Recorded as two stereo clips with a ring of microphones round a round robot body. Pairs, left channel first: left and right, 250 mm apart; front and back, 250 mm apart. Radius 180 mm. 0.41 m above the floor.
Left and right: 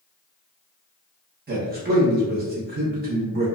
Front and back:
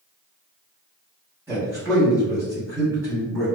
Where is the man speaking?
105° right, 0.9 m.